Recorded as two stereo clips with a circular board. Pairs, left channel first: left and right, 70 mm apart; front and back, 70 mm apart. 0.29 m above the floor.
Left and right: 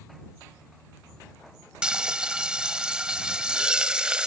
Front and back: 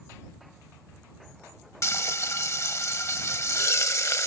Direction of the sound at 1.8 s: 20° right.